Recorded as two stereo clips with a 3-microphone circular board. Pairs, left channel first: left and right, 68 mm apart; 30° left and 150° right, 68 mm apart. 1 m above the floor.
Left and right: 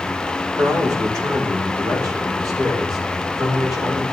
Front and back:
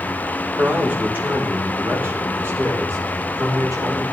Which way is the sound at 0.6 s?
85° right.